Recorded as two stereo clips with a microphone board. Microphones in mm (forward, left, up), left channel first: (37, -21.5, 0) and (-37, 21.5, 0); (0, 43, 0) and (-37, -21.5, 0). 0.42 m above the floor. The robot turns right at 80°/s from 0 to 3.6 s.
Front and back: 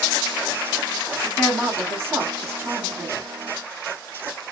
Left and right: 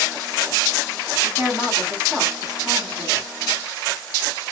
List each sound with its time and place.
1.2 s a woman speaking: 60° left, 1.3 m; by 3.3 s 135° right, 1.3 m